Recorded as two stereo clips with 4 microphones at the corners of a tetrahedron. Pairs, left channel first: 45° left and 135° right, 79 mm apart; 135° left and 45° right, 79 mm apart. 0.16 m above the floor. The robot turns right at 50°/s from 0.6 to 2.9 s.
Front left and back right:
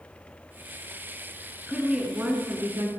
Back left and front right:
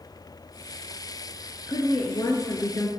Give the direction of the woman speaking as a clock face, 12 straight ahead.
8 o'clock.